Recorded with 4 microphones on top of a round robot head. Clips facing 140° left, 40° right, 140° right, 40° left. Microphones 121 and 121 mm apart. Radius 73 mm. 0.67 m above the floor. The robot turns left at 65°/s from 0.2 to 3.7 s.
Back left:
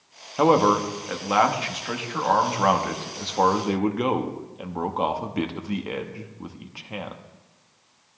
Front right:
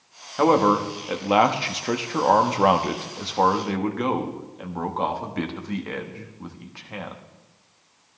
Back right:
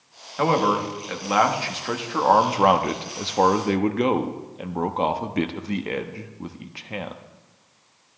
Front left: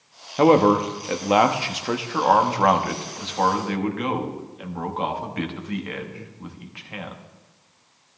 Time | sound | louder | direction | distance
0.4 | a man speaking | even, front left 5 dB | 65° left | 0.9 m